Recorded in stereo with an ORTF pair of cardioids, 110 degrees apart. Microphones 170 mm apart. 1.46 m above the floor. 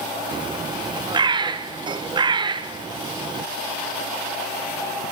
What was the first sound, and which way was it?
A bird, 25° right.